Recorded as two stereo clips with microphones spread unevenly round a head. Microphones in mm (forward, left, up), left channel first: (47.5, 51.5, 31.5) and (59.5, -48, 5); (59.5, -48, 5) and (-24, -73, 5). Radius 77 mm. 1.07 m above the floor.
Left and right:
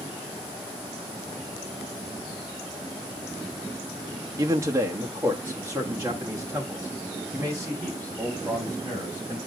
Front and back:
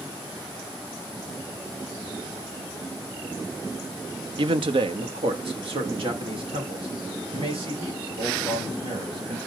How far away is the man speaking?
About 0.7 m.